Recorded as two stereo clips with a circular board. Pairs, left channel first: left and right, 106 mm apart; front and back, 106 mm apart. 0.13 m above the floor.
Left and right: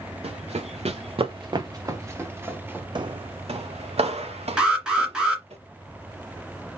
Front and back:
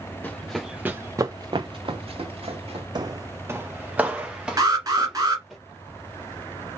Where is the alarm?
165° right, 1.9 m.